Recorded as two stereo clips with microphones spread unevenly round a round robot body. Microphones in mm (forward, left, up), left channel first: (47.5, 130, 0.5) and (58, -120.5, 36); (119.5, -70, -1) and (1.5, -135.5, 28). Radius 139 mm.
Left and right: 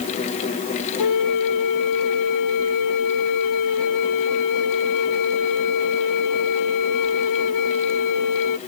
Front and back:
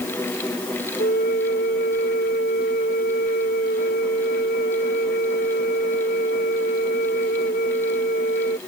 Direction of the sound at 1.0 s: 85° left.